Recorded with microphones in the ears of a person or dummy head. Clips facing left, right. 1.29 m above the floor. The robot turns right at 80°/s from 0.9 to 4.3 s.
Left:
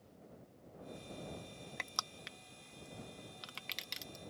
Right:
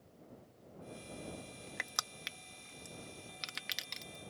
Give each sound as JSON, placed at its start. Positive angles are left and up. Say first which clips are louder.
{"t": 1.8, "sound": "crushing", "louder": "even", "side_deg": -10}